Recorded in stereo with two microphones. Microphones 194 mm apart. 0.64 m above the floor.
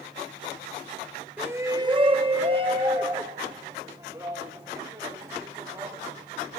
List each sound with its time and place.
1.4 s a shout: 10° right (ahead or behind), 0.7 m; by 6.6 s 20° right (ahead or behind), 4.5 m